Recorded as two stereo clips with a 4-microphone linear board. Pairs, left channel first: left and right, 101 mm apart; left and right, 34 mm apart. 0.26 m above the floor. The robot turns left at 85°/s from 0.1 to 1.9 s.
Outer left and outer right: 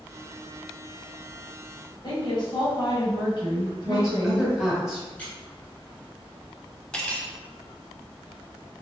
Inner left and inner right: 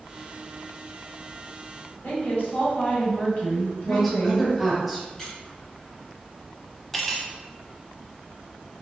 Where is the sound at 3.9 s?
5° right (ahead or behind), 1.5 m.